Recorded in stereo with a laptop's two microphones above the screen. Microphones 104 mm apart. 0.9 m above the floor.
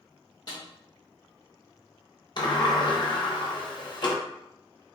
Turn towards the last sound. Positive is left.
turn(degrees=45)  # may be behind; listen again after turning